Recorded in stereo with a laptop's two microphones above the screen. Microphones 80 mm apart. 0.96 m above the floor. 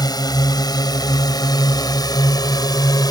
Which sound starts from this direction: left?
A drone, at 0.0 s.